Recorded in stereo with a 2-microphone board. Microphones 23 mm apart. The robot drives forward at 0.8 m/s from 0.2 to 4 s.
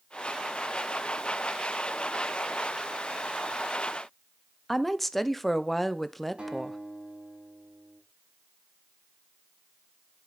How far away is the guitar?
About 7 m.